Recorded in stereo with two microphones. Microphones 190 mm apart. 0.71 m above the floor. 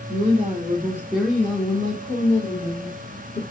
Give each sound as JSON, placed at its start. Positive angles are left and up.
{"t": 0.1, "sound": "a woman speaking", "side_deg": -40, "distance_m": 1.0}